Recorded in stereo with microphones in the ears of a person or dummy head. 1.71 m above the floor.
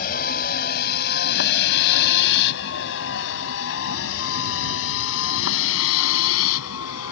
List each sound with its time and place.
0.0 s a vehicle: 50° left (ahead or behind); by 7.1 s 80° left